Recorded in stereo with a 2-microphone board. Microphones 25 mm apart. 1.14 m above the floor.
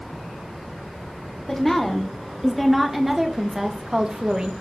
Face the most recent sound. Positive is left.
turn(degrees=-40)  # may be behind; listen again after turning